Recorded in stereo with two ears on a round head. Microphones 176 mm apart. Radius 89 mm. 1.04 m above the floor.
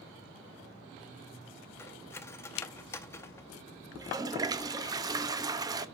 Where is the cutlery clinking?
15° left (ahead or behind), 0.6 m.